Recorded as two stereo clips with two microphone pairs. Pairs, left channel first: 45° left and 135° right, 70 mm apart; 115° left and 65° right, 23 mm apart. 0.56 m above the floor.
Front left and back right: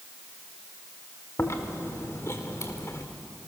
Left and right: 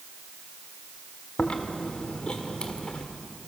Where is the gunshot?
I don't hear a gunshot.